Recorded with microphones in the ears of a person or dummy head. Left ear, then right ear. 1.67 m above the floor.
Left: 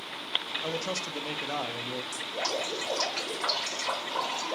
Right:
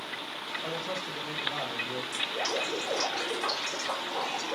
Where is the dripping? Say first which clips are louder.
Right 2 dB; 25° left (ahead or behind), 0.8 m.